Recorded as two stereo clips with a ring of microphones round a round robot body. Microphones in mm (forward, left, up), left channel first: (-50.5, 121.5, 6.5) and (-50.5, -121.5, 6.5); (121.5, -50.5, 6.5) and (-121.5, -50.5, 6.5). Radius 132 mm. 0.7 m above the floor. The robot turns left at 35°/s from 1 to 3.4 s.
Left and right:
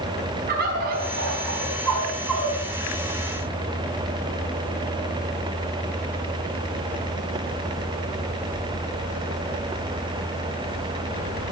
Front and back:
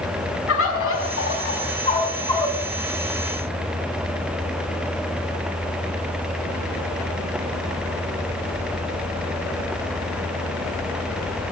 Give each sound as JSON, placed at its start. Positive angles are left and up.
{"t": 0.5, "sound": "a bird", "azimuth_deg": -30, "distance_m": 5.5}